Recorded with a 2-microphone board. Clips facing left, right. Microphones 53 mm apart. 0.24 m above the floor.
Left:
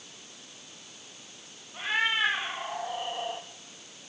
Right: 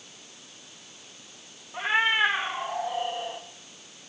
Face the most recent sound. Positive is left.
turn(degrees=20)  # may be behind; listen again after turning